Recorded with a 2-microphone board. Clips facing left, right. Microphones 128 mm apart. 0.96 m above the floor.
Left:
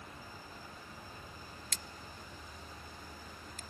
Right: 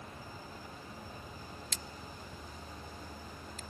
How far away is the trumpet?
I don't hear a trumpet.